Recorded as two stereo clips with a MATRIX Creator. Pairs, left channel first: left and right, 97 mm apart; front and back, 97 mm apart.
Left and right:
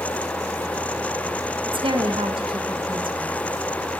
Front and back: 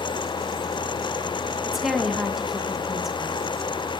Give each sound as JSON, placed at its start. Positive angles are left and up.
{"t": 1.7, "sound": "a woman speaking", "azimuth_deg": -95, "distance_m": 1.1}